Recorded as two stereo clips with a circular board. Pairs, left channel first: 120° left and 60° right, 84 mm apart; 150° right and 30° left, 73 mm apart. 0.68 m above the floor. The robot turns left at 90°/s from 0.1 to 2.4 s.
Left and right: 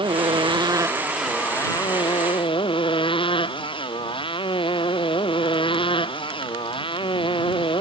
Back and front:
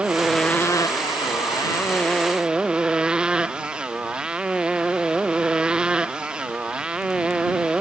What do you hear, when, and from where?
0.0 s a motorcycle: 45° right; by 7.8 s 110° left